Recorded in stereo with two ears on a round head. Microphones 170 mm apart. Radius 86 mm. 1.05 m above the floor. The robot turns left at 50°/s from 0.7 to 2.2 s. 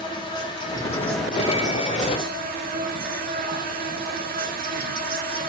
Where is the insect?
25° left, 0.7 m; by 5.5 s 50° right, 0.7 m.